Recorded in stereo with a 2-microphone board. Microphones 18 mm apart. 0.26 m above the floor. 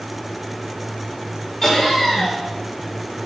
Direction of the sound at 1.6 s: 35° left (ahead or behind).